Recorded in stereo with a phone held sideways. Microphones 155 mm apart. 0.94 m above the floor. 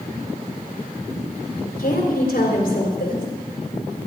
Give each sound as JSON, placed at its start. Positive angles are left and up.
{"t": 1.8, "sound": "a woman speaking", "side_deg": 60, "distance_m": 3.0}